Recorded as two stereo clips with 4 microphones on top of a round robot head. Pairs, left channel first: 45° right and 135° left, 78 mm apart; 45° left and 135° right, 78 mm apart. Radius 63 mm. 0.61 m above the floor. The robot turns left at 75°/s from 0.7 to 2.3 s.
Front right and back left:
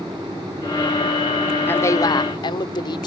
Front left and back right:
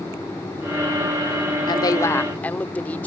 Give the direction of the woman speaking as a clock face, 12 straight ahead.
11 o'clock.